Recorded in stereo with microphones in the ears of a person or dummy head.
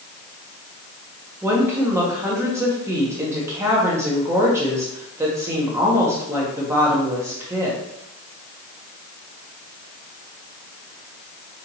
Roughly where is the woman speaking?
Centre.